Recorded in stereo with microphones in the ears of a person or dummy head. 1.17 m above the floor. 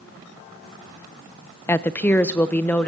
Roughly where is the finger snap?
I don't hear a finger snap.